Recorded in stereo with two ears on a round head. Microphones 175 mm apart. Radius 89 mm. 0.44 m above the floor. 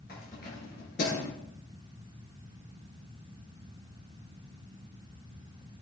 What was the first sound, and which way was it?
Keys jangling, 45° left (ahead or behind).